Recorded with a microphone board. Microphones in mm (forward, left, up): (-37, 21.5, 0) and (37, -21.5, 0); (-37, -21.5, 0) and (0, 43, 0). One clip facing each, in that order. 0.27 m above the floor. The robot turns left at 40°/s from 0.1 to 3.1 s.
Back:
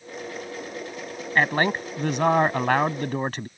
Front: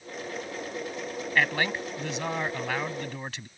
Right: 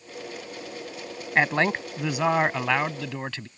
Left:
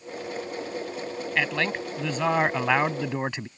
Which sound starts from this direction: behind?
A man speaking, at 1.4 s.